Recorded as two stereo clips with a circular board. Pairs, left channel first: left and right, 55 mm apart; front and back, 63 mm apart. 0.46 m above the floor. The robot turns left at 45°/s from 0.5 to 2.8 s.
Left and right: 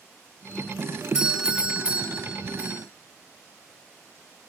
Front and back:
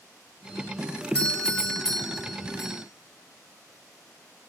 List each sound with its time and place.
1.1 s a doorbell: 40° right, 1.4 m; by 2.8 s 115° right, 1.4 m